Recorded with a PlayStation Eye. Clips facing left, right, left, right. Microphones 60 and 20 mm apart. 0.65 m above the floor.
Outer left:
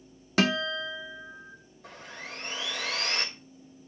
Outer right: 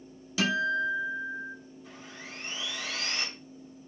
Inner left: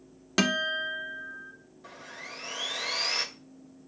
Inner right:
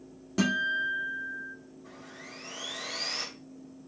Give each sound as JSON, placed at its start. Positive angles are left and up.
{"t": 0.4, "sound": "a guitar", "side_deg": 55, "distance_m": 1.2}
{"t": 1.8, "sound": "sawing", "side_deg": 65, "distance_m": 2.0}